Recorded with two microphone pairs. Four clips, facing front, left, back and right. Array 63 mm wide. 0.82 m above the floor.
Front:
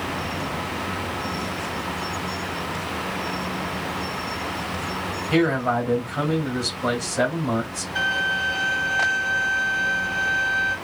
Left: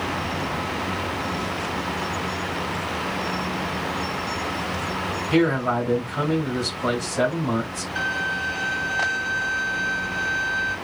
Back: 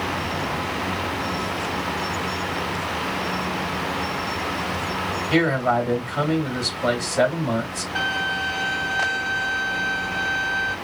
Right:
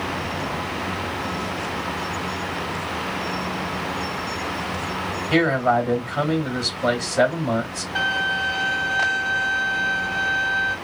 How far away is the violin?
About 2.5 m.